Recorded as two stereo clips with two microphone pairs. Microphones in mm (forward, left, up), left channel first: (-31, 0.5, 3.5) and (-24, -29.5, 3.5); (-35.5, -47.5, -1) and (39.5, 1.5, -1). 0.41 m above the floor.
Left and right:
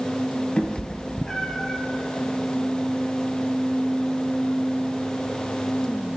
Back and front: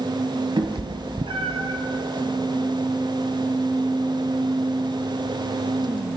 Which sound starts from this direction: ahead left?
A cat meowing, at 0.6 s.